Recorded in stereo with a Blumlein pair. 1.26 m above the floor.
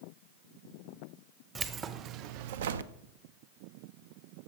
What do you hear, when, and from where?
1.6 s keys jangling: 20° right, 0.8 m; by 2.9 s 70° right, 0.6 m